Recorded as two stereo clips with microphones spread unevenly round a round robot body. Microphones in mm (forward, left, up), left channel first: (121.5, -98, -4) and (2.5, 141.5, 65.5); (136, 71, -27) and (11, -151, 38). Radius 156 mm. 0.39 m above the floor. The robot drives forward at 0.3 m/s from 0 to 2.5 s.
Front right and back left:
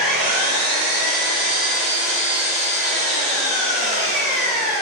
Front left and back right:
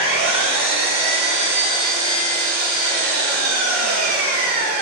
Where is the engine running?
140° left, 1.7 m; by 4.8 s 155° left, 2 m.